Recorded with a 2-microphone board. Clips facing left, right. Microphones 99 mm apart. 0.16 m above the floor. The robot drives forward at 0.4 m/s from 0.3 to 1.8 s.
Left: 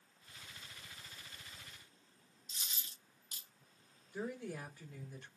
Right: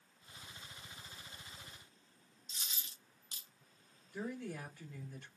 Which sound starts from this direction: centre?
A woman speaking, at 4.1 s.